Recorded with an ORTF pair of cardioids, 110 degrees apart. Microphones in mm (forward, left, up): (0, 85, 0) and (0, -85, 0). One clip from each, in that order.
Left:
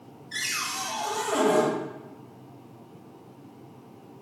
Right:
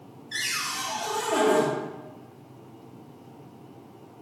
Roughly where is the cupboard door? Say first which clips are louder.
Right 1 dB; ahead.